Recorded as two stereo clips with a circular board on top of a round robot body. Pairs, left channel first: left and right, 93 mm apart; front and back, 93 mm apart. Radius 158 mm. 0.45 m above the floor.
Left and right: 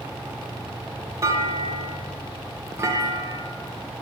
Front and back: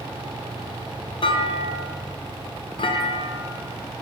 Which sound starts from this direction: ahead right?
A clunk, at 1.2 s.